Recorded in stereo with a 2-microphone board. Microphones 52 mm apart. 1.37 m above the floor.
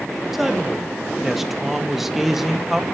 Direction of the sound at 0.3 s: 5° right (ahead or behind).